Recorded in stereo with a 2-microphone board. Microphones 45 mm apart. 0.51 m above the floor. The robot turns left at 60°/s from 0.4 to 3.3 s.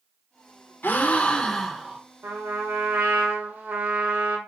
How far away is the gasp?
About 0.5 m.